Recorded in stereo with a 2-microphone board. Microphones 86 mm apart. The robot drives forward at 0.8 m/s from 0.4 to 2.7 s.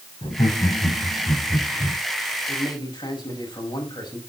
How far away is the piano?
No piano in this recording.